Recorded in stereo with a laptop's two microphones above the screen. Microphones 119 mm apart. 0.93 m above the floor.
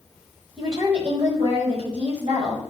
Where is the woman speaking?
60° right (ahead or behind), 5 m.